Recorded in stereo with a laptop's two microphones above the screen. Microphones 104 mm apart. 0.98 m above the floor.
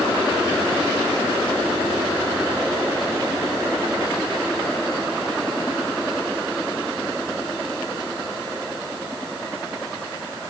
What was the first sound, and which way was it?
Only background noise.